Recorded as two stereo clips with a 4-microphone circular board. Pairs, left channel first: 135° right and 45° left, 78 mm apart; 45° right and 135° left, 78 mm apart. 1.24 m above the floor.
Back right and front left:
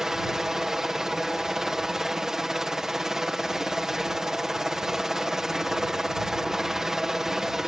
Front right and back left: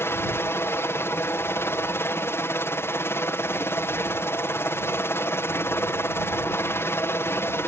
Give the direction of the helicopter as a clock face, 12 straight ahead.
1 o'clock.